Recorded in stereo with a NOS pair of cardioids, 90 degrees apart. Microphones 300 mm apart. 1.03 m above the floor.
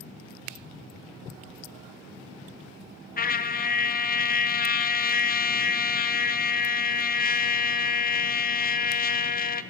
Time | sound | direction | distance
3.2 | a trumpet | 30° left | 0.6 m